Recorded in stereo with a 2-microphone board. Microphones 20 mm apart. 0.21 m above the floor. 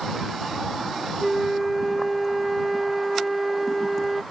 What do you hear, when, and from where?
1.2 s a flute: centre (ahead or behind)